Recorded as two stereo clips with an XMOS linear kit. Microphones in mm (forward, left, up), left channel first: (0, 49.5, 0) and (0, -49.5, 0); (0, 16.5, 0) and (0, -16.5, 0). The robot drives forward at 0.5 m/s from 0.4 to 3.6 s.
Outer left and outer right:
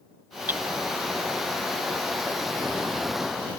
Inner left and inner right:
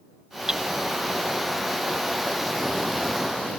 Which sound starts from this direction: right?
Hammering, at 0.5 s.